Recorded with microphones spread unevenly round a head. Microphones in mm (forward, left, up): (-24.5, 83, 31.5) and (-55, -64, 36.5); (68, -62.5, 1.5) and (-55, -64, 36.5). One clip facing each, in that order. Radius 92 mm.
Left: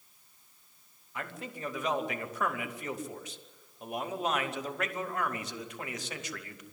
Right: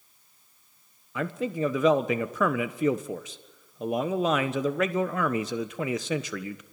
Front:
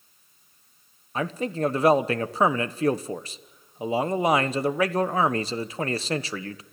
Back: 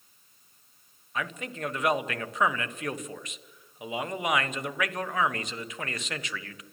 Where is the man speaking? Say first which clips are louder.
Right 12 dB, front 8 dB; 65° right, 1.3 m.